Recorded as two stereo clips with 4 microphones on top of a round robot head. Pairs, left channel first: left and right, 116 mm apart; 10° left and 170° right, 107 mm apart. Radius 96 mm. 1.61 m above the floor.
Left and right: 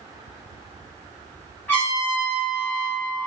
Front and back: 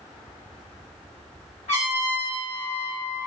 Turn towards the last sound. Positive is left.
turn(degrees=15)